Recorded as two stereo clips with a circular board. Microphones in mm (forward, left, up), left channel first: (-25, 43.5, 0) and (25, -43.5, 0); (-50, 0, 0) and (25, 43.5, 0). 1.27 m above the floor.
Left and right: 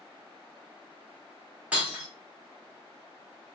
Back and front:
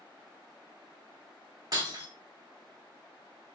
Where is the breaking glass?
10° left, 1.0 m.